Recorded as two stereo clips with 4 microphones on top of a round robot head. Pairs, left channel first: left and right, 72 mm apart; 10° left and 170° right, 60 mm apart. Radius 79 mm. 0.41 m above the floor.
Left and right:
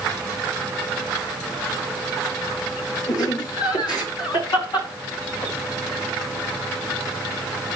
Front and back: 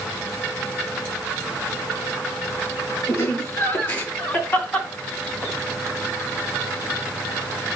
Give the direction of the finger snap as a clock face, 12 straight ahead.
I don't hear a finger snap.